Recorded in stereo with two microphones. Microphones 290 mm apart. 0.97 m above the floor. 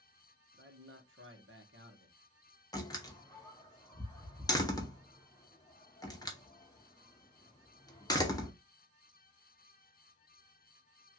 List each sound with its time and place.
0.5 s a man speaking: 45° right (ahead or behind), 0.9 m
2.7 s a door slam: 15° left (ahead or behind), 0.6 m